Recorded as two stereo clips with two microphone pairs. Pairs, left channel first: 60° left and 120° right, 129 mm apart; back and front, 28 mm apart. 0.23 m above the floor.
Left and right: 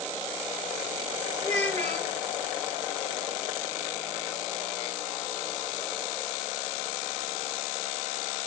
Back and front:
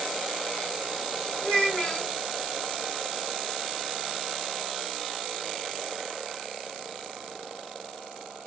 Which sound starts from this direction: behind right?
A child speaking, at 1.4 s.